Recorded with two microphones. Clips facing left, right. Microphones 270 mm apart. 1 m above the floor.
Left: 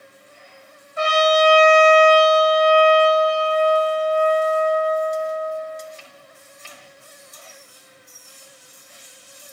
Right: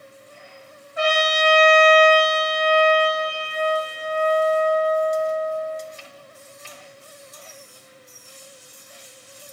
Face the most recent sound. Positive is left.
turn(degrees=50)  # may be behind; listen again after turning